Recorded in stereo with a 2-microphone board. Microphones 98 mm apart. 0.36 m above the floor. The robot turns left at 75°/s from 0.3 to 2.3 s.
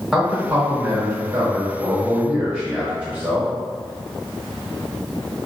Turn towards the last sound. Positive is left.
turn(degrees=-160)